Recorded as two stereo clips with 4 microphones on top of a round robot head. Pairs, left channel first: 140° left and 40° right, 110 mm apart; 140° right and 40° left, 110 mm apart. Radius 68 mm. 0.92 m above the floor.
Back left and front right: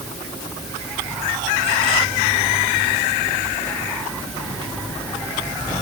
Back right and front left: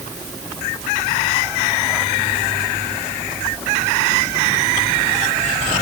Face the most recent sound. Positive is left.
No sound to turn to.